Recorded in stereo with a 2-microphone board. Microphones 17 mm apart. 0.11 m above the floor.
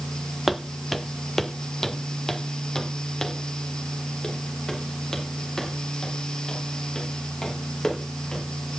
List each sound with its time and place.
0.5 s footsteps: 5° right (ahead or behind), 1.0 m; by 8.8 s 40° left (ahead or behind), 6.5 m